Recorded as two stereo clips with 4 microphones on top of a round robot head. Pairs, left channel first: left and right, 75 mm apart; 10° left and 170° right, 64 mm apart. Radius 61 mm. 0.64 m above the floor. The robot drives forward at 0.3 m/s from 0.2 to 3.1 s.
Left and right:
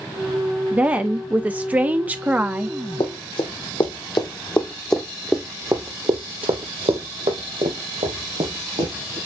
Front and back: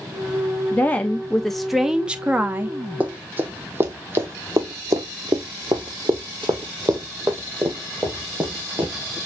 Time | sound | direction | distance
0.7 | a woman speaking | 30° right | 0.7 m
3.0 | running footsteps | 125° left | 1.5 m